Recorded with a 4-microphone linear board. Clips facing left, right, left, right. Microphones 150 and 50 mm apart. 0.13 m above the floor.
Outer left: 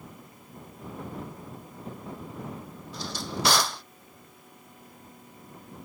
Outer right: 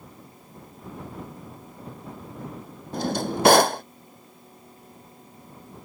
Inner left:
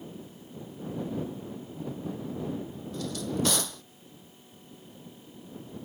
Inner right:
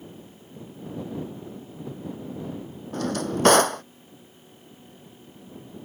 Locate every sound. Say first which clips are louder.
2.9 s a drawer: outer right 9 dB, inner right 6 dB; 55° right (ahead or behind)